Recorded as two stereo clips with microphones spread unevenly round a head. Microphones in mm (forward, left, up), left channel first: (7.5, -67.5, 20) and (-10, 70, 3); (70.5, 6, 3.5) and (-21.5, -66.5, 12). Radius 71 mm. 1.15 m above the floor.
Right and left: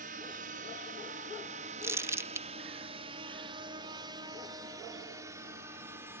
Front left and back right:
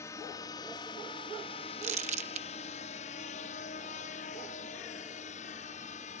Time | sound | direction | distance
0.0 | a drone | 105° left | ?
1.8 | crumpling | 170° left | ?